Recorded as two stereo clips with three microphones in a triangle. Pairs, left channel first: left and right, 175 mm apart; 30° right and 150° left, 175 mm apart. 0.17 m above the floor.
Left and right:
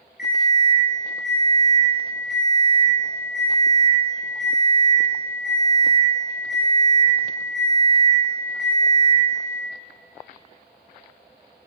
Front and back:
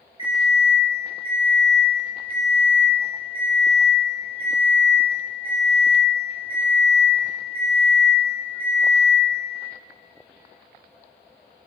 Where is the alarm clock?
90° left, 1.6 m.